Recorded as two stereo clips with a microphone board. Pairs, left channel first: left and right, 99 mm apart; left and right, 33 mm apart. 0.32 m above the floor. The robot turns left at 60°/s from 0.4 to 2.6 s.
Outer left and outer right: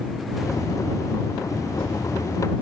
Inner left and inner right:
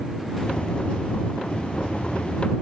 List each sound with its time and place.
Only background noise.